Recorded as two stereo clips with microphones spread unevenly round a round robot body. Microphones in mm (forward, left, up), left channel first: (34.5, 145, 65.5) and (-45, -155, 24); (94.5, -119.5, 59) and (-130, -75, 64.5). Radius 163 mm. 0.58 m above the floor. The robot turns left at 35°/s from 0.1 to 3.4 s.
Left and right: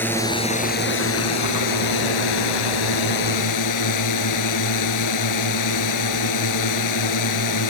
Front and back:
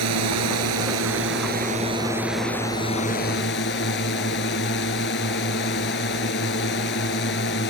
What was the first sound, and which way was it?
A drone, 160° left.